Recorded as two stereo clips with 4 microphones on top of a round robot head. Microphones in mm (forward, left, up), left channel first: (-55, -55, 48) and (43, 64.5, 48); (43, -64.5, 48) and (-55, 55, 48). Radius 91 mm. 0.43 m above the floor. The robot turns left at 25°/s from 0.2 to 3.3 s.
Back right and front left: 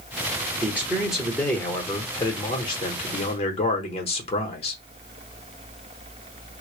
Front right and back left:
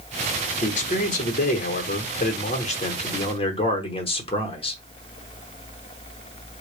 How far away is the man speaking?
About 1.1 m.